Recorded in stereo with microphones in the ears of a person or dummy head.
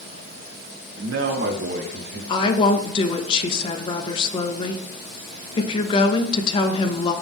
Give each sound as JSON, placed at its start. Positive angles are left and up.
{"t": 1.0, "sound": "a man speaking", "side_deg": -70, "distance_m": 1.3}
{"t": 2.3, "sound": "a woman speaking", "side_deg": 30, "distance_m": 1.1}